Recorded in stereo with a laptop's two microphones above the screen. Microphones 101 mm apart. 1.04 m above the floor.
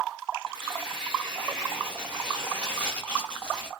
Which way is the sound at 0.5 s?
10° left (ahead or behind).